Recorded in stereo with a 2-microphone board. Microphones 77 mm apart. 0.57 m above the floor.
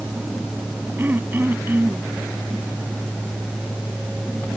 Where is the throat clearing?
25° right (ahead or behind).